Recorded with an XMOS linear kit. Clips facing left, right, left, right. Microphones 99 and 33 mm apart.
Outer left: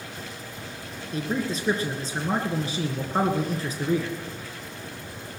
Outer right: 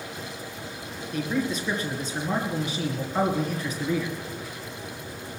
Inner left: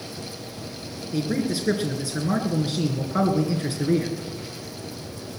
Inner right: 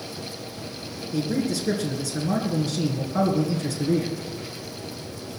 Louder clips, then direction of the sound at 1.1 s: Outer right 1 dB, even; 35° left (ahead or behind).